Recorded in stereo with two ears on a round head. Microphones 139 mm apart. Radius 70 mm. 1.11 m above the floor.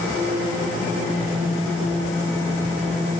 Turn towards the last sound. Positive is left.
No sound to turn to.